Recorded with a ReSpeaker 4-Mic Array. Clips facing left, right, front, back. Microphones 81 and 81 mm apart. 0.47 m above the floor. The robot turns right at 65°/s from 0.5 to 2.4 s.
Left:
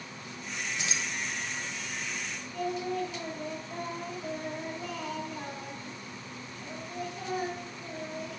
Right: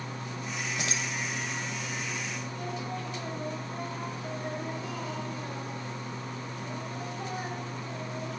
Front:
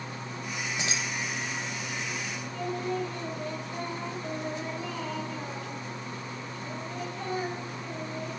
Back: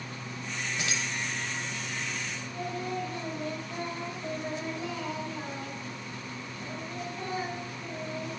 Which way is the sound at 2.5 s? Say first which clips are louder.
Left 8 dB, front 3 dB; 115° left.